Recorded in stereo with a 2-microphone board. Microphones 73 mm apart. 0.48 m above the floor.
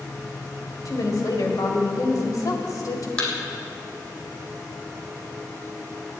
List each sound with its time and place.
0.8 s a woman speaking: 60° left (ahead or behind), 2 m
3.2 s a thud: 20° left (ahead or behind), 2.5 m